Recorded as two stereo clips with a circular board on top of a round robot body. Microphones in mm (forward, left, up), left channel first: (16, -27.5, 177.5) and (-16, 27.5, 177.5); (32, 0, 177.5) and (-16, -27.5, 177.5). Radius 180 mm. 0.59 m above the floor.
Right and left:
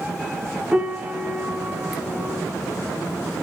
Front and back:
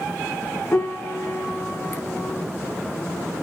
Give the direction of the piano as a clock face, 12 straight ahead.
10 o'clock.